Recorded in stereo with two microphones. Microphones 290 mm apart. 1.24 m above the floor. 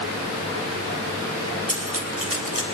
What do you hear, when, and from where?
1.7 s cutlery clinking: 55° right (ahead or behind), 3.5 m